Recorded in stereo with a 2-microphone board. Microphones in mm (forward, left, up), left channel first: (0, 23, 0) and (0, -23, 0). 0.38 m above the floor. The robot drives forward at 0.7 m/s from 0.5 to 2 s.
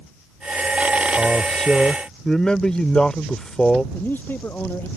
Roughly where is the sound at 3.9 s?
Left.